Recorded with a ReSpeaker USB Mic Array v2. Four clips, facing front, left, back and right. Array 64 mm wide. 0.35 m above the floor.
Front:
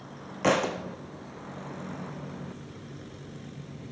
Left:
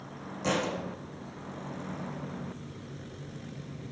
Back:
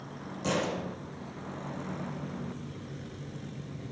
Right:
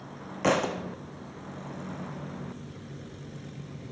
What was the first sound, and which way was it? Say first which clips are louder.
A thud: right 5 dB, front 6 dB; 50° right.